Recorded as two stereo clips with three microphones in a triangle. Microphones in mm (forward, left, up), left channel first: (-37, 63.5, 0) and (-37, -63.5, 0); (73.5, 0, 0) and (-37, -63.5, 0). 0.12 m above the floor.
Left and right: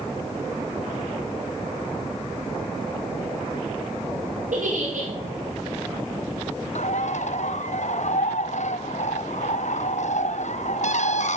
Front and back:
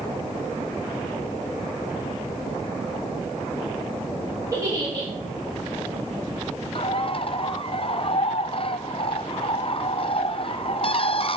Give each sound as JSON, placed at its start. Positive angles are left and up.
{"t": 4.5, "sound": "a giggle", "azimuth_deg": -85, "distance_m": 7.0}
{"t": 6.8, "sound": "a bird", "azimuth_deg": 70, "distance_m": 0.9}